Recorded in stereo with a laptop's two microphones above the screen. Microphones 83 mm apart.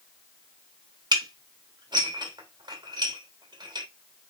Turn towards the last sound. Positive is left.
turn(degrees=-60)  # may be behind; listen again after turning